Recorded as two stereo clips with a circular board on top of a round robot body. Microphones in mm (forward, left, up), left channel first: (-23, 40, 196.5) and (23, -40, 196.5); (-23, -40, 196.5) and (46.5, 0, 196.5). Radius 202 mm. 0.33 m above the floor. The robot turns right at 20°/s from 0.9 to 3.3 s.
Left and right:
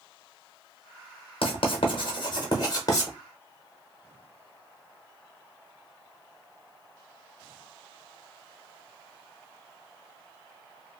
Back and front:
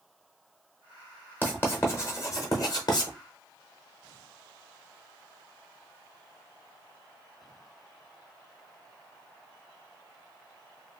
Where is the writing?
140° left, 0.7 m; by 3.1 s 175° left, 0.7 m.